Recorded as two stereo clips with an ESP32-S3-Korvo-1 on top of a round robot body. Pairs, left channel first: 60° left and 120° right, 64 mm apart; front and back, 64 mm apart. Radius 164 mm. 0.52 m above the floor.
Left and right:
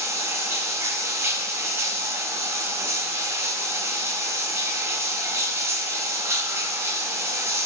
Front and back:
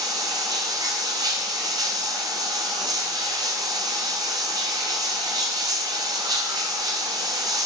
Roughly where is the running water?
Behind.